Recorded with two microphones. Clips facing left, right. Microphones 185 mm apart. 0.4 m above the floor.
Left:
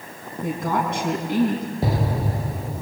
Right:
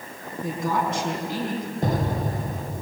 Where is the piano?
No piano in this recording.